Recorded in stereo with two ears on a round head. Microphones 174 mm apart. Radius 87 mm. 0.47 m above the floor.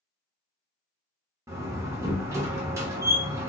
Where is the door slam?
15° right (ahead or behind), 0.7 m.